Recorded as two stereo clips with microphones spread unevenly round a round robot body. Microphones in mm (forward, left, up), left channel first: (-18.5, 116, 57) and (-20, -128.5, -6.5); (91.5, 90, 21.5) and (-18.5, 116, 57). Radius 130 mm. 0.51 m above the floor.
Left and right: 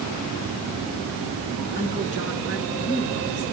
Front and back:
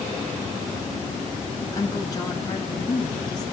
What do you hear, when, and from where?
1.7 s a woman speaking: 40° left, 4.5 m; by 3.4 s 35° left, 5.5 m